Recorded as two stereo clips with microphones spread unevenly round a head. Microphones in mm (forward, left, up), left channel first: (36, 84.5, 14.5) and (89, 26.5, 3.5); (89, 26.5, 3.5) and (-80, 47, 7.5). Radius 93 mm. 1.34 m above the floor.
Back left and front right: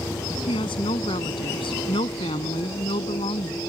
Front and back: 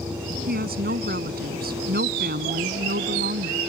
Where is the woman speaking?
145° left.